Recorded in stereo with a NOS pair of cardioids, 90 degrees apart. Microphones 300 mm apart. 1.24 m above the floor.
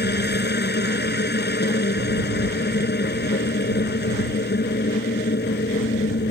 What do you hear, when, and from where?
0.0 s a machine running: 30° left